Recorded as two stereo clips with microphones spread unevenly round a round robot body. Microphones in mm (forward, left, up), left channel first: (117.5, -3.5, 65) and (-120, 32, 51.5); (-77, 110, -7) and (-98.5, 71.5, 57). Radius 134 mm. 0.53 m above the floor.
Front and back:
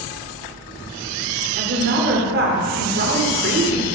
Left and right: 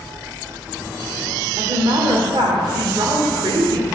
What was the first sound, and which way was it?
A woman speaking, 150° right.